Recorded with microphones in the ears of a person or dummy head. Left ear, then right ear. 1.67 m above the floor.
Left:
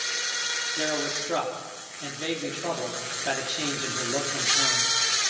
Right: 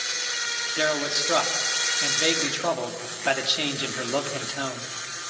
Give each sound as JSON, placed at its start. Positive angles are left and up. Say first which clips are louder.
{"t": 0.8, "sound": "a man speaking", "louder": "right 4 dB", "side_deg": -50, "distance_m": 3.5}